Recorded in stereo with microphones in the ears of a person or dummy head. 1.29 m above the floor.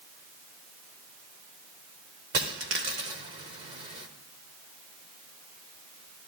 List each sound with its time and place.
2.3 s a dropped coin: 20° right (ahead or behind), 1.0 m